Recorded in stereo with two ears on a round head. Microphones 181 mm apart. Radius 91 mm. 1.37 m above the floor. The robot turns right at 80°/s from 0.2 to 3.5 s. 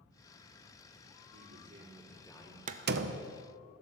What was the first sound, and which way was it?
A man speaking, 65° right.